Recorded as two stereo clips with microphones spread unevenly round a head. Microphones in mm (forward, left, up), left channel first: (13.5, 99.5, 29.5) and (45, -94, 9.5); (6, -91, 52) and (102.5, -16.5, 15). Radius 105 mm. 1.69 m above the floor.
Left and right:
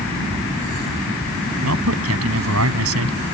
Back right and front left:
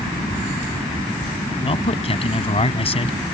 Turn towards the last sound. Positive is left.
turn(degrees=-105)